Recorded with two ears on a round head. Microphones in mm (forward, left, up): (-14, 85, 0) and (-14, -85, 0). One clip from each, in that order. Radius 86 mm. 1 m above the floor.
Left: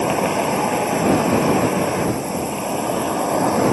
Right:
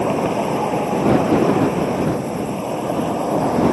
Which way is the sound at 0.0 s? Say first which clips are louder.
Even; 35° left (ahead or behind).